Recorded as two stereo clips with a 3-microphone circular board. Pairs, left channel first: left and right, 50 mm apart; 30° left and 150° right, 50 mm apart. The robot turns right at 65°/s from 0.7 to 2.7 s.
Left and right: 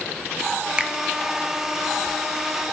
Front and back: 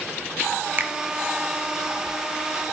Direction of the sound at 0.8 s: 150° right.